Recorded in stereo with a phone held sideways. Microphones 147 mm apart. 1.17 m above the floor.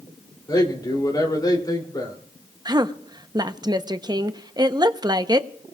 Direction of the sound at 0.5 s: 25° left (ahead or behind).